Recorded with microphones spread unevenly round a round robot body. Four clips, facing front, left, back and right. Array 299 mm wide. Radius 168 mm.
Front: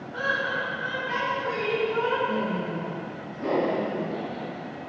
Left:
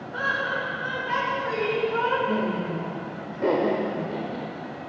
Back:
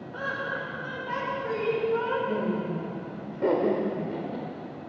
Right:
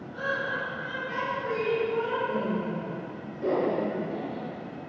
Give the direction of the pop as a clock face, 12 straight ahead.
I don't hear a pop.